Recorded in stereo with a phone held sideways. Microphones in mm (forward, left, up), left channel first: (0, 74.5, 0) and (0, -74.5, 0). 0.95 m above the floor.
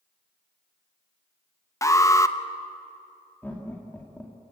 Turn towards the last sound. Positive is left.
turn(degrees=15)  # may be behind; listen again after turning